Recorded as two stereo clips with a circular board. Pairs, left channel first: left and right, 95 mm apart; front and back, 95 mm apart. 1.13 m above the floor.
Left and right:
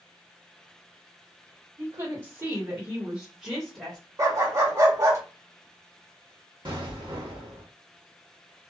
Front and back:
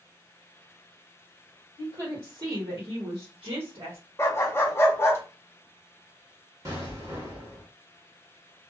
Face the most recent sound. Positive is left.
turn(degrees=-125)